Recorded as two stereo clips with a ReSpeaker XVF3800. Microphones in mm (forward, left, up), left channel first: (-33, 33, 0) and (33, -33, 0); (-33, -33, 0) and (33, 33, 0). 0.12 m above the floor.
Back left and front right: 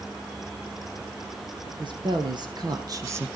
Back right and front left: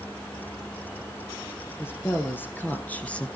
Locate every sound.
1.6 s a woman speaking: 70° right, 3 m